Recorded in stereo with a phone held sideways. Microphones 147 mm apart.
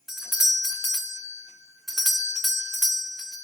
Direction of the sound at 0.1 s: Centre (ahead or behind).